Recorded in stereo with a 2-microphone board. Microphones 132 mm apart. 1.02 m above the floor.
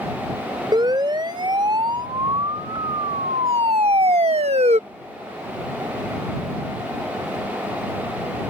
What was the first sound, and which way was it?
A siren, 35° right (ahead or behind).